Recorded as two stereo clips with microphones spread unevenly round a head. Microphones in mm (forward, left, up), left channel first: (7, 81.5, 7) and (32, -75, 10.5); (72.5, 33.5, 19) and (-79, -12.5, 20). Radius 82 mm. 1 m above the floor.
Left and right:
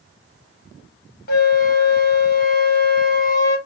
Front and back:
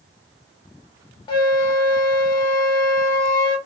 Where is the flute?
75° left, 1.3 m.